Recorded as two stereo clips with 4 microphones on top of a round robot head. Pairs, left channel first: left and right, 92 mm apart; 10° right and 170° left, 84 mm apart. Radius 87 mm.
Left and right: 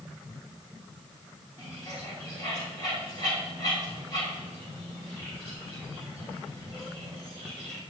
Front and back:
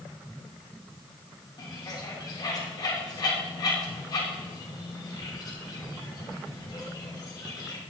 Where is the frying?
I don't hear frying.